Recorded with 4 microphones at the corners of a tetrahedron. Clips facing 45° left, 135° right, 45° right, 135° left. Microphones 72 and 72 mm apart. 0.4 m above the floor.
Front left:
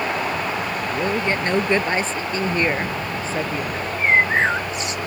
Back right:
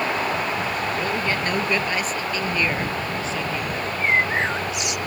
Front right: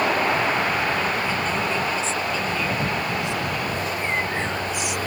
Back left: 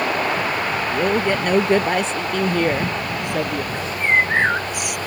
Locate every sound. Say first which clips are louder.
0.9 s a man speaking: front left 2 dB, back left 5 dB; 110° left; by 3.6 s 100° left
3.7 s a bird: front left 4 dB, back left 6 dB; 105° left